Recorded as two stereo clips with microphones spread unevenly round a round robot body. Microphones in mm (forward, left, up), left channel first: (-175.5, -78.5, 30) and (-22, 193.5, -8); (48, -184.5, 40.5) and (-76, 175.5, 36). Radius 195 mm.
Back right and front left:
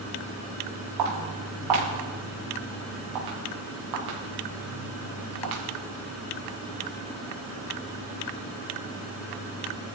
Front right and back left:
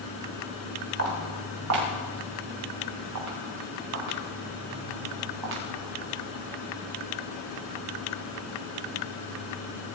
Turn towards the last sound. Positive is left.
turn(degrees=70)